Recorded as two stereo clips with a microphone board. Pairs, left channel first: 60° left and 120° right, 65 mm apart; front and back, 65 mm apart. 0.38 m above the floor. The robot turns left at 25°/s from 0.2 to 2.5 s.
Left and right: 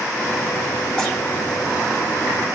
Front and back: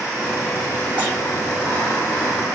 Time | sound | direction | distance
1.0 | tearing paper | 130° left | 1.3 m